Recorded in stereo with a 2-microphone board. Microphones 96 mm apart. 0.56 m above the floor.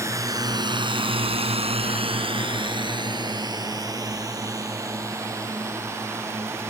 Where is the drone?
30° right (ahead or behind); by 6.7 s 25° right (ahead or behind).